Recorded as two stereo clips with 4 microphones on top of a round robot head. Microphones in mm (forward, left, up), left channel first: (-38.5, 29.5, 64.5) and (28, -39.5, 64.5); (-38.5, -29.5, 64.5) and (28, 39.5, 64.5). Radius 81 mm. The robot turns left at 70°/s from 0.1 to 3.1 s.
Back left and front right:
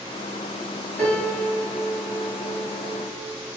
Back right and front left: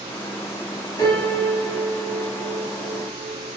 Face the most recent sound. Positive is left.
turn(degrees=55)